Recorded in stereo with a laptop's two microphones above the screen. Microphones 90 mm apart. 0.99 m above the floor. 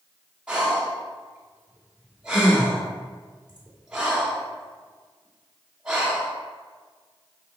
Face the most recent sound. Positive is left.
turn(degrees=-10)  # may be behind; listen again after turning